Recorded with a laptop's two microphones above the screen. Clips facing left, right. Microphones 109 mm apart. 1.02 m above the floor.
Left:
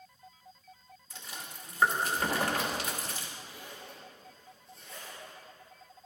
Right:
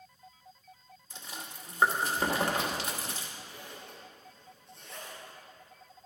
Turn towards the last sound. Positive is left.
turn(degrees=-65)  # may be behind; listen again after turning